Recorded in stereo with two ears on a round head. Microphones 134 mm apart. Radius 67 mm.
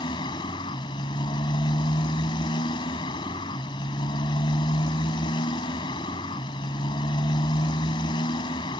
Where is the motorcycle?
30° left (ahead or behind).